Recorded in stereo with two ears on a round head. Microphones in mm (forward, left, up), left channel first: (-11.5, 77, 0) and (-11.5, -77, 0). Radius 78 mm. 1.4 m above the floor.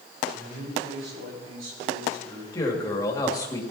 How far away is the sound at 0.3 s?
About 7 m.